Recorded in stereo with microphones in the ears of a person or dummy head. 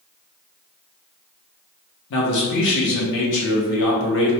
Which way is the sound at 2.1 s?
75° left (ahead or behind).